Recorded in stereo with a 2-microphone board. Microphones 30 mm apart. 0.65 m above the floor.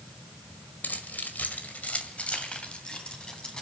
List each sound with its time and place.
0.8 s keys jangling: 80° left, 1.7 m; by 3.6 s 25° left (ahead or behind), 3.5 m